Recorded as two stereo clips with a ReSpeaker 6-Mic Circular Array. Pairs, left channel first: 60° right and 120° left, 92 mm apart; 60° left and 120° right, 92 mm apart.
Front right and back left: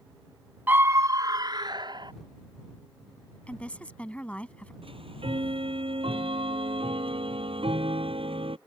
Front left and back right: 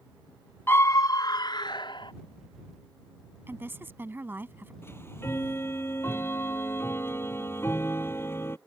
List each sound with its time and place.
0.7 s a scream: 85° left; by 2.1 s 90° left
3.5 s a woman speaking: 115° right
4.8 s ticking: 125° left